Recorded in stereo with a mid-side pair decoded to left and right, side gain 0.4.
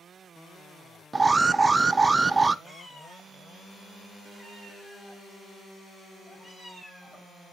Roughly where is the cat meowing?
Ahead.